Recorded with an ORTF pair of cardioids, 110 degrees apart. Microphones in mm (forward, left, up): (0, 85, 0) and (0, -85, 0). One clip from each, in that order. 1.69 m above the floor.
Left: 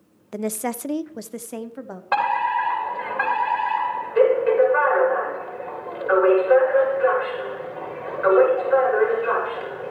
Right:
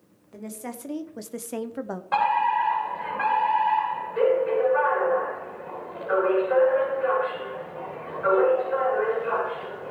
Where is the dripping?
No dripping in this recording.